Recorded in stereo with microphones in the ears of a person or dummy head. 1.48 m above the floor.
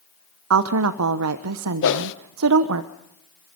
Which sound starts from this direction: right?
A woman speaking, at 0.5 s.